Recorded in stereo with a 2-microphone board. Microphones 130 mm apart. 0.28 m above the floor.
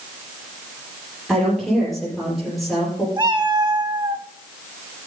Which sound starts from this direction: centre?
A woman speaking, at 1.3 s.